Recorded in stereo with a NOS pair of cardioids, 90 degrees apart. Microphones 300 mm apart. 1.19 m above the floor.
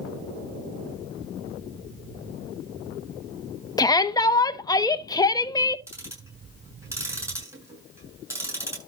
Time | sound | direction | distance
3.8 | a shout | 15° left | 1.3 m
5.9 | ticking | 10° right | 7.5 m